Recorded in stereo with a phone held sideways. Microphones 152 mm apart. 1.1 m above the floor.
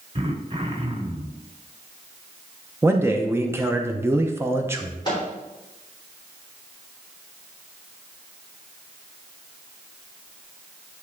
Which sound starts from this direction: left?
A microwave, at 5.0 s.